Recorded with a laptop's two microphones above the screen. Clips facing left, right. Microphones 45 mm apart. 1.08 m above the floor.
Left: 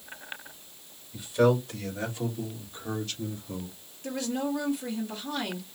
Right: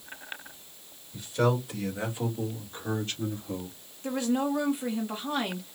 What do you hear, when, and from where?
1.1 s a man speaking: 10° left (ahead or behind), 1.4 m; by 3.8 s 55° right (ahead or behind), 2 m
4.0 s a woman speaking: 30° right (ahead or behind), 1.1 m